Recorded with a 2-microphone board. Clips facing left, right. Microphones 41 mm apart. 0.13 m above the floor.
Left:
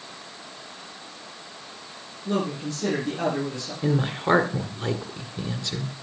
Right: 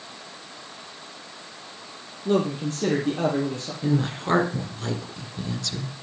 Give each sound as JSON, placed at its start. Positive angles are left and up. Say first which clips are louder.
{"t": 2.2, "sound": "a man speaking", "louder": "right 4 dB", "side_deg": -40, "distance_m": 4.5}
{"t": 3.8, "sound": "a woman speaking", "louder": "left 1 dB", "side_deg": 20, "distance_m": 1.8}